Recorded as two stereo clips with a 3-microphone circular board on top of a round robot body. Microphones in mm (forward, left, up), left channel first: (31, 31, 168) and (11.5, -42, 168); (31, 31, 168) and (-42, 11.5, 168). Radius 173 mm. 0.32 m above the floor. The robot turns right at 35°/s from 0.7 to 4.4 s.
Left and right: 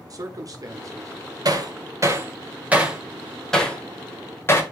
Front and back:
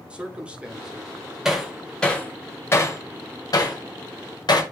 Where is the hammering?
85° right, 1.6 m; by 4.6 s 20° left, 1.6 m.